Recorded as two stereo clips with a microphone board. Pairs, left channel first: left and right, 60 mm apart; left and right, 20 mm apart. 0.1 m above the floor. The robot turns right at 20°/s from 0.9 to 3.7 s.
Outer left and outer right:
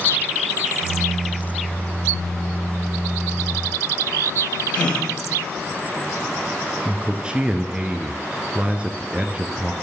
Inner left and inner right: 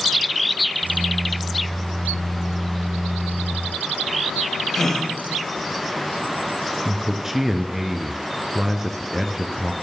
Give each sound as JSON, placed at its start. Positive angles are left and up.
{"t": 4.7, "sound": "a gasp", "side_deg": 20, "distance_m": 6.5}
{"t": 6.8, "sound": "a man speaking", "side_deg": -20, "distance_m": 1.3}